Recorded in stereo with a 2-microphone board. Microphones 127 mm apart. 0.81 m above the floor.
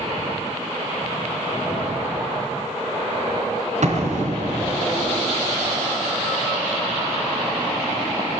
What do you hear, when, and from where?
3.8 s an explosion: 65° right (ahead or behind), 3 m